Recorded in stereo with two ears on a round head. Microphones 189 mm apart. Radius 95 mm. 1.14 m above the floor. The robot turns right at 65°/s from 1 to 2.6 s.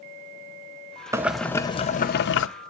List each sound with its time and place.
1.1 s boiling: 15° right, 0.6 m; by 2.5 s 75° left, 0.6 m